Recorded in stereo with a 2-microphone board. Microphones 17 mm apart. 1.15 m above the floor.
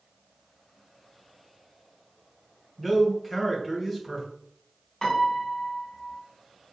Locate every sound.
2.8 s a man speaking: 5° right (ahead or behind), 1.1 m
5.0 s a piano: 30° left (ahead or behind), 1.0 m